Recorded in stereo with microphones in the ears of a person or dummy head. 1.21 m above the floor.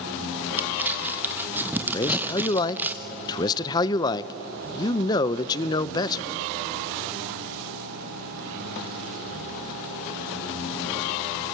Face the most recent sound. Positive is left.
turn(degrees=25)  # may be behind; listen again after turning